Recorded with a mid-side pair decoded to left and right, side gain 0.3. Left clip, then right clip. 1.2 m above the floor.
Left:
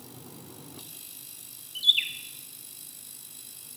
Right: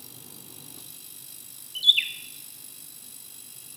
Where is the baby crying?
No baby crying in this recording.